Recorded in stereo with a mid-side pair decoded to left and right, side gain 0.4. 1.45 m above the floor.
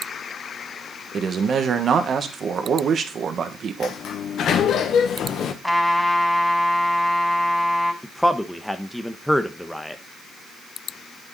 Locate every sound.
1.1 s a man speaking: 60° right, 1.7 m
3.8 s a sliding door: 70° left, 1.5 m
5.6 s a trumpet: 5° left, 4 m
8.0 s a man speaking: 5° left, 1.1 m